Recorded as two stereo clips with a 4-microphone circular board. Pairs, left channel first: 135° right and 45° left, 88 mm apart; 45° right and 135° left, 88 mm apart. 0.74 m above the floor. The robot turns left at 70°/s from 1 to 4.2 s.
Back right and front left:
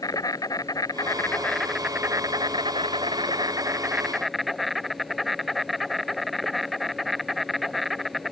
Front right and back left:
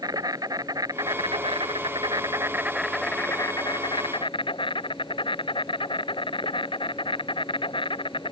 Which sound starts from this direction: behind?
An insect, at 0.0 s.